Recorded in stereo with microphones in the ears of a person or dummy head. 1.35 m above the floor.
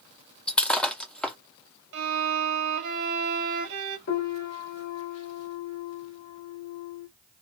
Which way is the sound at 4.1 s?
60° left (ahead or behind).